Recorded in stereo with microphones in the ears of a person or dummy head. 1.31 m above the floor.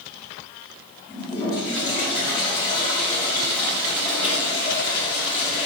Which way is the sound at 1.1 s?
25° left (ahead or behind).